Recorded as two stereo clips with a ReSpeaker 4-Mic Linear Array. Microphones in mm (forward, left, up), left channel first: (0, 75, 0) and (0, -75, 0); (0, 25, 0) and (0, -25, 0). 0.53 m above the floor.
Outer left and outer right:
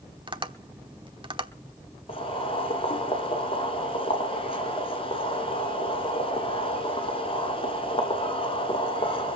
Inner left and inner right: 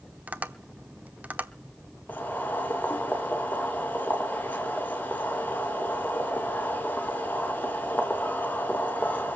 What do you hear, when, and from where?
0.3 s tapping: 35° right (ahead or behind), 1.0 m
2.1 s boiling: 40° left (ahead or behind), 2.5 m